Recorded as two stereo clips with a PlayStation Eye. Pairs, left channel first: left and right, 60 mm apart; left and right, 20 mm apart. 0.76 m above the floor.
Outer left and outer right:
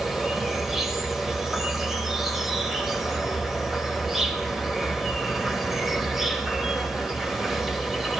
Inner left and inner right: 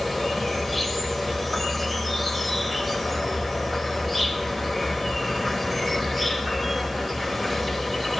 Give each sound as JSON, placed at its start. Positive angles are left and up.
{"t": 0.0, "sound": "an insect", "side_deg": -5, "distance_m": 0.9}